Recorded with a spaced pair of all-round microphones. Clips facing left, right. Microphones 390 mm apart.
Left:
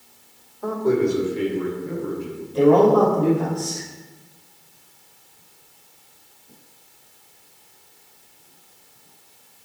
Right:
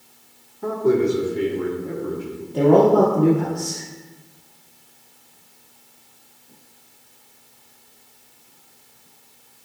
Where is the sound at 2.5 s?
90° right, 2.5 m.